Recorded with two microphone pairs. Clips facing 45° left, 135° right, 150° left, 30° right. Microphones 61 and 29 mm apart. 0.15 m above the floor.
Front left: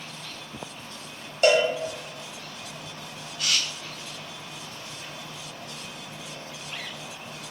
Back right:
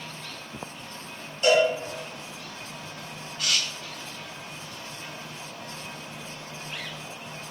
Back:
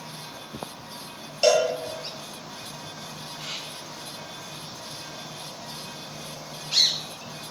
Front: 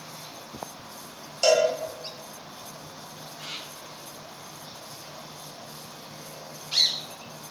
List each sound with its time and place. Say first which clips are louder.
1.4 s a cowbell: even, even; 65° left, 0.9 m